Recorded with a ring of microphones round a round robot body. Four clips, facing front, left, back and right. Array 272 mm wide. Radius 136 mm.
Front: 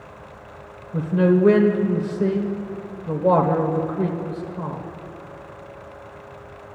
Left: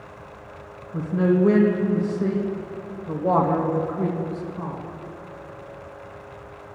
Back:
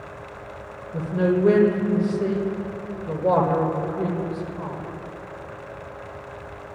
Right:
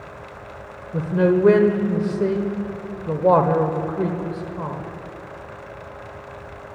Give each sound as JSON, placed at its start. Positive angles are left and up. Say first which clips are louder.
{"t": 0.9, "sound": "a man speaking", "louder": "right 2 dB, front 4 dB", "azimuth_deg": -75, "distance_m": 1.5}